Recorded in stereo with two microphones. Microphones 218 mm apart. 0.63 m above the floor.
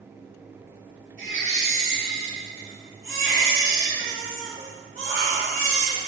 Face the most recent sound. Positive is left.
turn(degrees=-65)  # may be behind; listen again after turning